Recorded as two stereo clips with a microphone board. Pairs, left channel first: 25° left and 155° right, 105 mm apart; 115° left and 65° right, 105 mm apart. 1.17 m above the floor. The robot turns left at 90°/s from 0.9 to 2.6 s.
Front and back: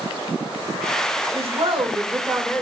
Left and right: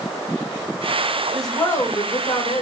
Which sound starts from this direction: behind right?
A woman speaking, at 1.3 s.